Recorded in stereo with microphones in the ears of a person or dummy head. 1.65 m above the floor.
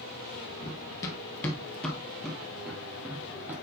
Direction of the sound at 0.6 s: 25° left (ahead or behind).